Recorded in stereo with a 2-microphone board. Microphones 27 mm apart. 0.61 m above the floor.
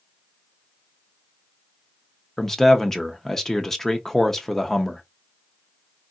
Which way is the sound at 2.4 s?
10° left (ahead or behind).